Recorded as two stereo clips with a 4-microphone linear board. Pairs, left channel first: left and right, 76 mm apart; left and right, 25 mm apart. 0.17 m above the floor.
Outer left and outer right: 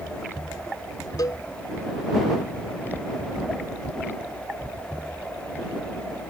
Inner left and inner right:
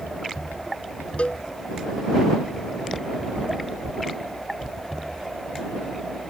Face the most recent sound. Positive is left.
turn(degrees=60)  # may be behind; listen again after turning